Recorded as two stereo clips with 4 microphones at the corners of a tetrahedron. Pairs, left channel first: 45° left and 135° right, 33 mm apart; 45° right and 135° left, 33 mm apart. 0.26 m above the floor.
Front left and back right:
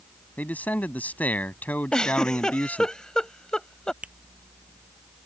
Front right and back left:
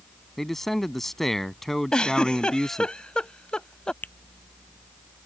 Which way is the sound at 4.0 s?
85° right.